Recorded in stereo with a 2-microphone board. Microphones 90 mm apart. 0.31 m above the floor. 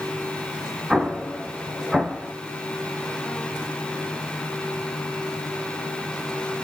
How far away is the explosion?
About 0.5 m.